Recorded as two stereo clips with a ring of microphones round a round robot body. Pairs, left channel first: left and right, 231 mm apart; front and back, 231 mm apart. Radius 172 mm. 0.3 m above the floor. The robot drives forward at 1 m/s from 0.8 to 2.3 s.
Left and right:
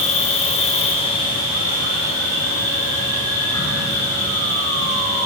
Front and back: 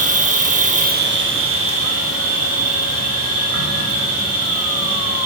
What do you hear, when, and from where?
0.0 s an insect: 140° left, 0.8 m; by 5.2 s 170° left, 2 m